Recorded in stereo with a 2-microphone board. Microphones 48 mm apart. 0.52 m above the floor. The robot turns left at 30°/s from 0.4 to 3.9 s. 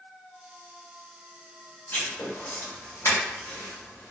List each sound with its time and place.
1.9 s writing: 35° left (ahead or behind), 1.6 m; by 4.1 s 65° left (ahead or behind), 1.6 m